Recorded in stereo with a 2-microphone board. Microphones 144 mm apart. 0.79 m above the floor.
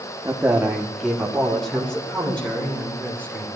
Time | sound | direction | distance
0.2 | a man speaking | 15° right (ahead or behind) | 0.9 m